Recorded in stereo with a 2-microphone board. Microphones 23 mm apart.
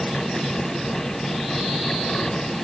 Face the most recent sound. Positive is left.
No sound to turn to.